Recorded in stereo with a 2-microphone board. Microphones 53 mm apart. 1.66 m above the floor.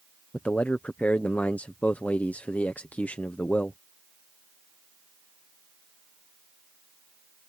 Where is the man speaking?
25° left (ahead or behind).